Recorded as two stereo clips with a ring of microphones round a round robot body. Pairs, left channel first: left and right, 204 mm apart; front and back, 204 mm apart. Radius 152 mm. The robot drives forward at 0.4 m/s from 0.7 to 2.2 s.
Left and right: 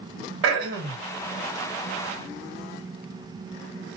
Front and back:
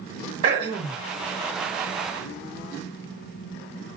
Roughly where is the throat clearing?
Right.